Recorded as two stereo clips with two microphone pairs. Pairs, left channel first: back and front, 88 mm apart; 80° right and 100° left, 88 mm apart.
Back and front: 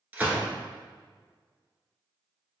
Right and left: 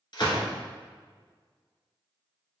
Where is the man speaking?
No man speaking in this recording.